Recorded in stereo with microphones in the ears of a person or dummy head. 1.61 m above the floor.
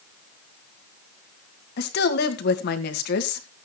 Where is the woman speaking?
65° left (ahead or behind), 2 m.